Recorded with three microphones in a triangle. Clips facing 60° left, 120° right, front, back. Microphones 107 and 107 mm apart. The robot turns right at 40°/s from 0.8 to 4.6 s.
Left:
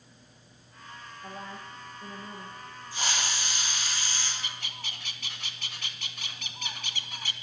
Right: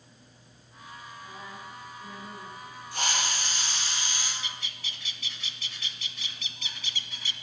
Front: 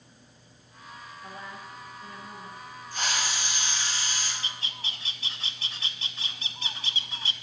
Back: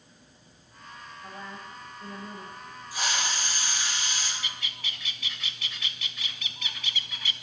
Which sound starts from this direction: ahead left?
A bird, at 4.4 s.